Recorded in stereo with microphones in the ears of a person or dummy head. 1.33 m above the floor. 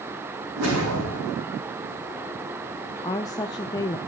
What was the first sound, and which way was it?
A whoosh, 75° right (ahead or behind).